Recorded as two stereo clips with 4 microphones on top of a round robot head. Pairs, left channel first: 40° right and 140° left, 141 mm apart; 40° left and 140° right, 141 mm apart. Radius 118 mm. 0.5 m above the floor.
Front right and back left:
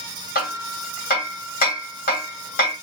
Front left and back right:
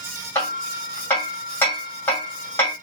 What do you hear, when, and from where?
0.3 s hammering: 35° right, 2 m